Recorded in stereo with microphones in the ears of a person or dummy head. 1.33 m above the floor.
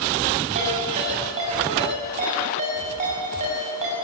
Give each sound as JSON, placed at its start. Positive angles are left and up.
{"t": 0.6, "sound": "a ringtone", "side_deg": -40, "distance_m": 6.5}